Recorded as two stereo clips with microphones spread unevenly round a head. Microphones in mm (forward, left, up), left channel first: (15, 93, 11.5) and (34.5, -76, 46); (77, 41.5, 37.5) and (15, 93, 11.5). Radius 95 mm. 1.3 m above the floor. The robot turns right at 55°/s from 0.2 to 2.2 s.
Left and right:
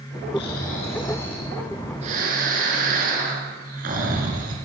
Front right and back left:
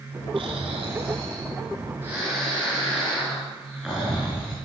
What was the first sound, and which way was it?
Snoring, 130° left.